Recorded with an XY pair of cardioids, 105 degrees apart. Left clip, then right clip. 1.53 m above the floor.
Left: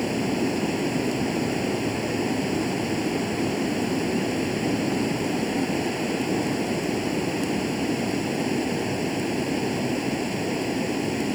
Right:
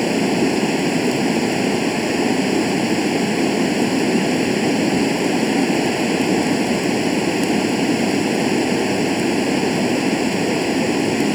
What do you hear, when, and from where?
0.0 s running water: 50° right